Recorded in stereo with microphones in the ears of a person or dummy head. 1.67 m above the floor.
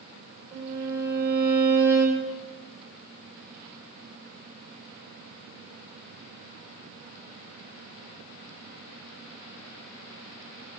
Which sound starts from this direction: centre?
A violin, at 0.5 s.